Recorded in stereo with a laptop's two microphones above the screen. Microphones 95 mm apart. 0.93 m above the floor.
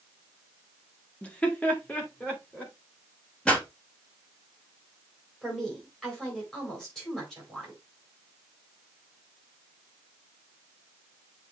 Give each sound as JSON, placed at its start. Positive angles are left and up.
{"t": 1.2, "sound": "laughter", "side_deg": 15, "distance_m": 1.1}
{"t": 3.5, "sound": "a pop", "side_deg": 10, "distance_m": 4.5}
{"t": 5.4, "sound": "a woman speaking", "side_deg": 5, "distance_m": 4.5}